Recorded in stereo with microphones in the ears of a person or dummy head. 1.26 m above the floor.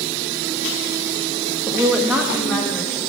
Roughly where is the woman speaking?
Centre.